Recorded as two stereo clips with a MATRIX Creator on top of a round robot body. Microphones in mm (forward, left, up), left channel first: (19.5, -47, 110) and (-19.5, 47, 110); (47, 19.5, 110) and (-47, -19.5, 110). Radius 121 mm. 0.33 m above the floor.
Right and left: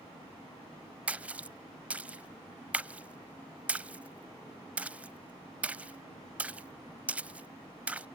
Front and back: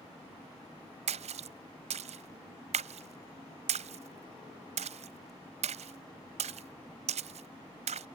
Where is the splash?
170° right.